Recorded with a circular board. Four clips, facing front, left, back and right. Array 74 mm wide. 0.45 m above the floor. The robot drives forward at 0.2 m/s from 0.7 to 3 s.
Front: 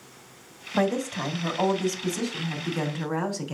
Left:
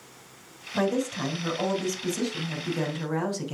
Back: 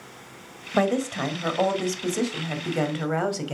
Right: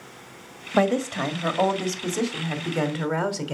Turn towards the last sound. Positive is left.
turn(degrees=-135)